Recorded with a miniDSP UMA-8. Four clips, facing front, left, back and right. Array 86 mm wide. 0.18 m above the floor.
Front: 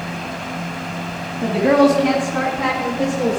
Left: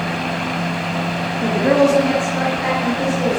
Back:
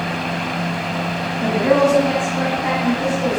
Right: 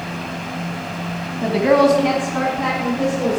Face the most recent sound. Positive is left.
turn(degrees=-25)